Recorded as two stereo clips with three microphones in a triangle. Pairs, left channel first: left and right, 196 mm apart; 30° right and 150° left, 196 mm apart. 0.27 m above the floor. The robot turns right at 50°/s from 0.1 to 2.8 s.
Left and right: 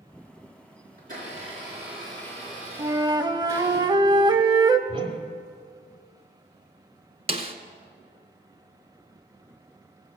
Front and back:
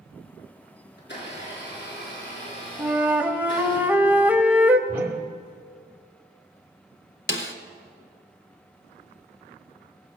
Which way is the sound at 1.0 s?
55° right.